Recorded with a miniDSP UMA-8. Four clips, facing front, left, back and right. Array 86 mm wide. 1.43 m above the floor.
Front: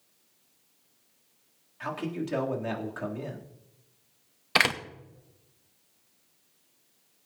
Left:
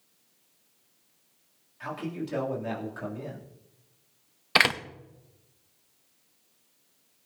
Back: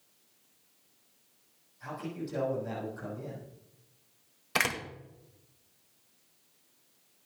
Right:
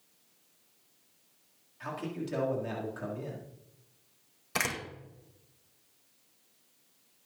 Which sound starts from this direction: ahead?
A man speaking, at 1.8 s.